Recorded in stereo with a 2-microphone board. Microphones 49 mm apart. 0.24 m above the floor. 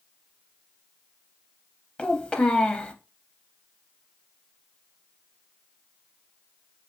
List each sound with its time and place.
2.0 s a child speaking: 20° left (ahead or behind), 0.6 m